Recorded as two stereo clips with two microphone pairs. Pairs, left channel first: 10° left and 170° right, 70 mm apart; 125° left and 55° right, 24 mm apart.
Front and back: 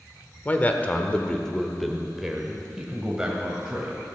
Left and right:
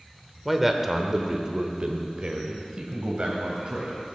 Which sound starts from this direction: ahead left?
A man speaking, at 0.5 s.